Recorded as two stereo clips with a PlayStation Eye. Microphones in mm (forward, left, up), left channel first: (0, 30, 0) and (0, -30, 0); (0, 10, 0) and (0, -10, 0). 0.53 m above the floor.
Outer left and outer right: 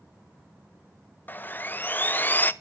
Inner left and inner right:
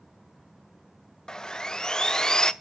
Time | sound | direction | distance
1.3 | sawing | 35° left (ahead or behind) | 0.5 m